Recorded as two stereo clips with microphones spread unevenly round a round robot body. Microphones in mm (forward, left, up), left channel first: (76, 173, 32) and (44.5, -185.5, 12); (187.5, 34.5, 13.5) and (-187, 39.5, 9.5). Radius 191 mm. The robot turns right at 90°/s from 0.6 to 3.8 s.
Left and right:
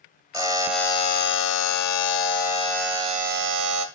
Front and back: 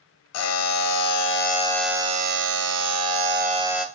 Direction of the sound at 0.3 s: 20° right.